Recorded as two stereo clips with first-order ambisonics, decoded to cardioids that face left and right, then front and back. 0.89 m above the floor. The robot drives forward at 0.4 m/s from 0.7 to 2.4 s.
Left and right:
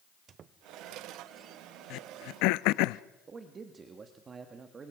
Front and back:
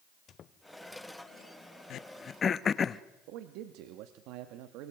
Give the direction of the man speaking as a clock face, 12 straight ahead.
5 o'clock.